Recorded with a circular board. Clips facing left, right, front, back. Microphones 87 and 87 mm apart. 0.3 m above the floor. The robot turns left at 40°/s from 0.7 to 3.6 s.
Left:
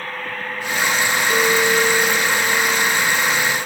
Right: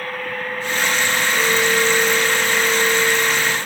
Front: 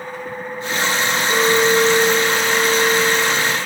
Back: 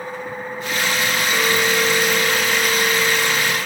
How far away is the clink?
About 3 m.